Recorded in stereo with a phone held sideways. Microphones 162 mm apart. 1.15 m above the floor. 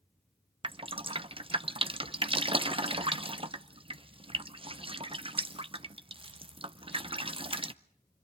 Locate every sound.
0.6 s dripping: 35° right (ahead or behind), 0.7 m